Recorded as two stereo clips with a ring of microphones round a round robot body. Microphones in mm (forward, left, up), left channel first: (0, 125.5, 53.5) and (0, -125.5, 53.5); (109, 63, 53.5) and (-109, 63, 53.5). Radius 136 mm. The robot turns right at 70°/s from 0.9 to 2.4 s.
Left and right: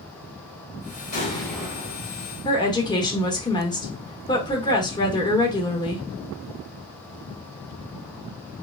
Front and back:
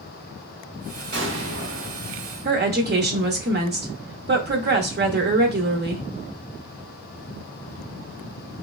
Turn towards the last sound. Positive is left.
turn(degrees=160)